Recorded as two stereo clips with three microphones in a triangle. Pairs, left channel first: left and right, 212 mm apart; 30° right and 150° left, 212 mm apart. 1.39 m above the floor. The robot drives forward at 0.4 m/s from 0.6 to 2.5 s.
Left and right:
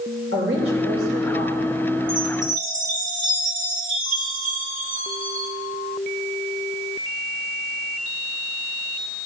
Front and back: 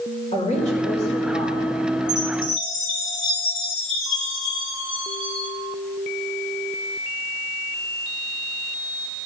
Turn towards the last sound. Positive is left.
turn(degrees=-140)